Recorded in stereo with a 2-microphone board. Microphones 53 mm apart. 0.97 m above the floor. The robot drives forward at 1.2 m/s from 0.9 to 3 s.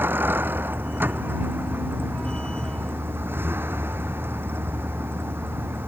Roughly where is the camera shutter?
I don't hear a camera shutter.